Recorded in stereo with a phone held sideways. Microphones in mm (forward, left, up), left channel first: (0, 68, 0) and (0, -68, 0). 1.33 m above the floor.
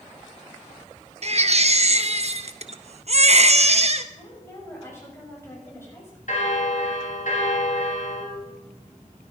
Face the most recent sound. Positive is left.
turn(degrees=60)  # may be behind; listen again after turning